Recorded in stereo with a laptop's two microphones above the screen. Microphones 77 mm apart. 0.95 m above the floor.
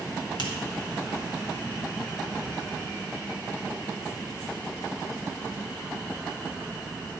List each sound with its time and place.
0.4 s a finger snap: 70° left (ahead or behind), 1.5 m